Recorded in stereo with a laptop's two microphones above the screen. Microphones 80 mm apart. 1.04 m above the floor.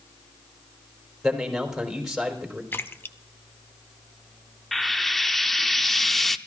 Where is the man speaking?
5° right (ahead or behind), 4 m.